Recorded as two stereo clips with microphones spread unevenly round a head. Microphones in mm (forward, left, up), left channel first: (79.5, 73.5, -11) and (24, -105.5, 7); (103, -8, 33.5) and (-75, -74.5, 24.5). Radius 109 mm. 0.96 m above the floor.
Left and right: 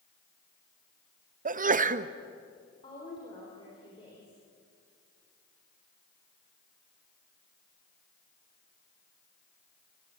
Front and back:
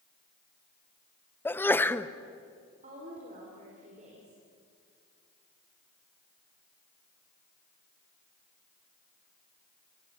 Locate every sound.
1.4 s a sneeze: 60° right, 0.9 m
2.8 s a woman speaking: 140° left, 3.5 m